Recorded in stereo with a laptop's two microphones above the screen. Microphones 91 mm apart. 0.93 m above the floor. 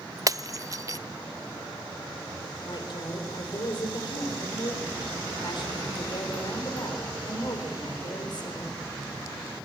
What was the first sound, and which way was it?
Breaking glass, 40° right (ahead or behind).